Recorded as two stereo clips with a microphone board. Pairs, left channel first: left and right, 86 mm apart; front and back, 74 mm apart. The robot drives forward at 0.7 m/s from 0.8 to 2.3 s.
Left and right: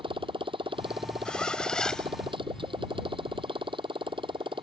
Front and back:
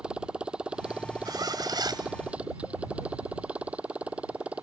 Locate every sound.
0.0 s a motorcycle: 105° right
1.2 s a zipper: 165° left; by 2.1 s 170° left